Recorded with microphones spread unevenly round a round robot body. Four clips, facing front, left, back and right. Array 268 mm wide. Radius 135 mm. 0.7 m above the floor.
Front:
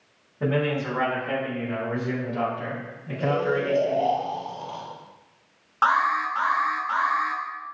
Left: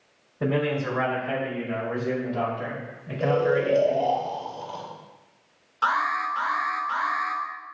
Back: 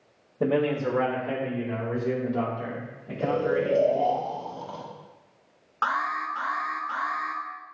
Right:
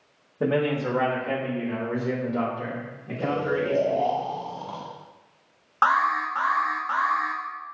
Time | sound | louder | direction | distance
0.4 | a man speaking | right 1 dB, back 1 dB | 145° right | 1.4 m
3.2 | snoring | left 4 dB, front 1 dB | 110° right | 1.2 m
5.8 | an alarm | right 3 dB, front 6 dB | 80° right | 1.3 m